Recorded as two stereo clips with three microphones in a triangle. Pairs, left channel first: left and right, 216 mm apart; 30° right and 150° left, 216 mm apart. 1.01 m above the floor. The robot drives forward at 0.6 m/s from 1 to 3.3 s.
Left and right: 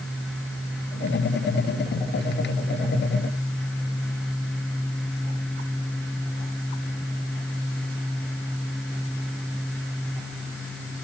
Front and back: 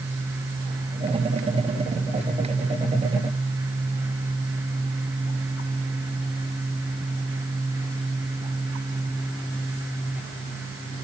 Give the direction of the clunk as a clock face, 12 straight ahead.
No clunk in this recording.